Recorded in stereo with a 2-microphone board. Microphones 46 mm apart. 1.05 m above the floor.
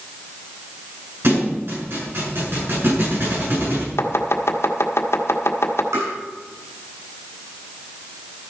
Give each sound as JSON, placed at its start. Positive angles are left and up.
{"t": 1.2, "sound": "a thud", "side_deg": -60, "distance_m": 7.0}
{"t": 4.0, "sound": "chopping", "side_deg": 70, "distance_m": 1.5}
{"t": 5.9, "sound": "tapping", "side_deg": -85, "distance_m": 7.5}